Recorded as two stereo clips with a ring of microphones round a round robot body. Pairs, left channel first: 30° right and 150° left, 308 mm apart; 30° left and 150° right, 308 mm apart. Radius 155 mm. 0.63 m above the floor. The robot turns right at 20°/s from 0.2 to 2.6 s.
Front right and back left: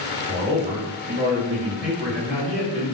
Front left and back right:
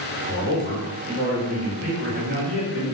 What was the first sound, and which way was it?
A man speaking, 145° left.